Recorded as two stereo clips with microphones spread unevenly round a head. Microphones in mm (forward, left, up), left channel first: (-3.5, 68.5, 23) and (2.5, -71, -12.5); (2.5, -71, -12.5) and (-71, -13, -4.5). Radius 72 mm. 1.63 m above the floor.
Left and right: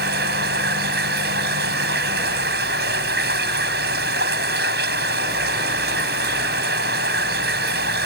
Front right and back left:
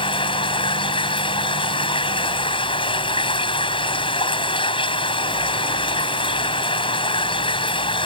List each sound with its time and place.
0.0 s running water: 65° right